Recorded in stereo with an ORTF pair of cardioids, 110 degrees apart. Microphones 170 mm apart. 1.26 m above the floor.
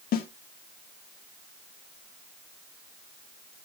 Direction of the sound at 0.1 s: 60° left.